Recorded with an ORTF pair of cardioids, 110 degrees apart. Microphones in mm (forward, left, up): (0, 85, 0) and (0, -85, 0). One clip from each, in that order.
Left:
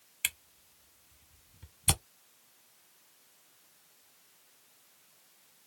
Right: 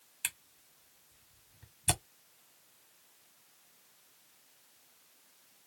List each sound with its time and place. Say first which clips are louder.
0.2 s a camera shutter: left 5 dB; 15° left, 1.0 m